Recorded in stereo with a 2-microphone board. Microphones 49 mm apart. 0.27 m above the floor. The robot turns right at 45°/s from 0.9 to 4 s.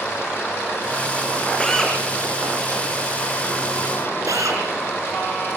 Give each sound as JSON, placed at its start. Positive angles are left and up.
{"t": 1.6, "sound": "a drill", "side_deg": 15, "distance_m": 7.5}